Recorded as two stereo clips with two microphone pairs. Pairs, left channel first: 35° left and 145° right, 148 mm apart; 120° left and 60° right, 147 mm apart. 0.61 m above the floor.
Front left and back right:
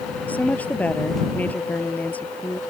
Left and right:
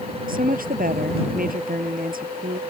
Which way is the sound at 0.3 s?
45° right.